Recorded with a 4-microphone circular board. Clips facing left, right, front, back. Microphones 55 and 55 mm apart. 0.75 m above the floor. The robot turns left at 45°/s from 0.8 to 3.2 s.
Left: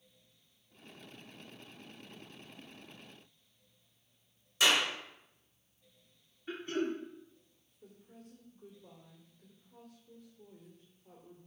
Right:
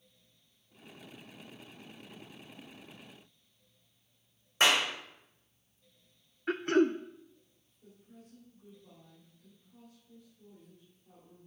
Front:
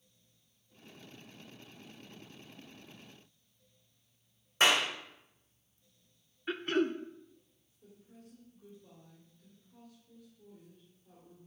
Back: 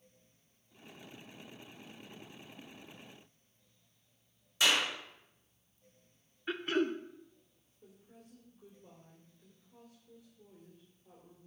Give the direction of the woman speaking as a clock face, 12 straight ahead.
8 o'clock.